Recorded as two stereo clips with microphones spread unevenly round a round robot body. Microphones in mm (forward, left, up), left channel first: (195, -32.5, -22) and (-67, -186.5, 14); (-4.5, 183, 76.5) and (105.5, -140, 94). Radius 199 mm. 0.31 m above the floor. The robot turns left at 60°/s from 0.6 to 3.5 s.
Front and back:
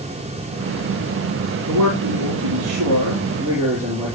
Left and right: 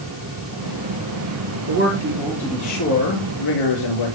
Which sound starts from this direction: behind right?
A man speaking, at 1.7 s.